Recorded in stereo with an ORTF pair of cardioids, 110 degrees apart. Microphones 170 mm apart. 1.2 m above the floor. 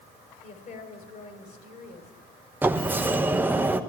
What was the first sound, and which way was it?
A woman speaking, 50° left.